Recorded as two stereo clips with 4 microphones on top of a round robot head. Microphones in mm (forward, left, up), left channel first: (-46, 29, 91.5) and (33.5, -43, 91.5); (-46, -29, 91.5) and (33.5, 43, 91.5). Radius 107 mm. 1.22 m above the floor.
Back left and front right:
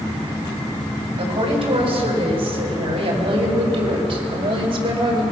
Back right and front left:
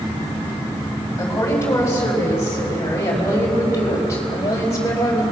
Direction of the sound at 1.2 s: 70° right.